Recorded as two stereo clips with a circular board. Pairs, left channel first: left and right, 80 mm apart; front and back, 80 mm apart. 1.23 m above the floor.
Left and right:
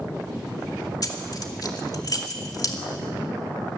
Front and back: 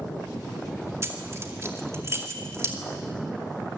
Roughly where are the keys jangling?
Behind left.